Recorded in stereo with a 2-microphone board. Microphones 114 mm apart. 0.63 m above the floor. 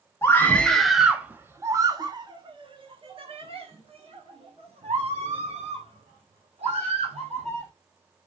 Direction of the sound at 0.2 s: 20° left (ahead or behind).